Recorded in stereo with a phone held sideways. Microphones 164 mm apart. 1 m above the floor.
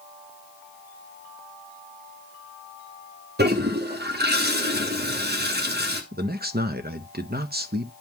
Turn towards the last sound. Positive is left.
turn(degrees=-65)  # may be behind; listen again after turning